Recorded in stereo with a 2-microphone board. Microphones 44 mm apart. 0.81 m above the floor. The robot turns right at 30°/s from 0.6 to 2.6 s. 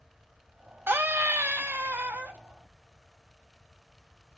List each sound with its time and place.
0.9 s a scream: 105° right, 0.6 m; by 2.4 s 60° right, 0.6 m